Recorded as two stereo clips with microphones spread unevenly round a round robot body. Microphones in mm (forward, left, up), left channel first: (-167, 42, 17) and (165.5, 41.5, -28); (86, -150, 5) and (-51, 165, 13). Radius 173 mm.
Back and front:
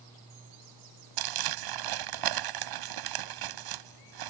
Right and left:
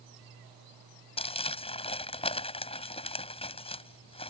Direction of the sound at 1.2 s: 5° left.